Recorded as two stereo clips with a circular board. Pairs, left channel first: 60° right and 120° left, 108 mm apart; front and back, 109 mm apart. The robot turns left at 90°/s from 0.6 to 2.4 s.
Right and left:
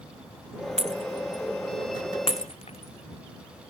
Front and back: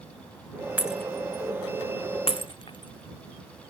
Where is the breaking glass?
105° left; by 3.7 s 40° right.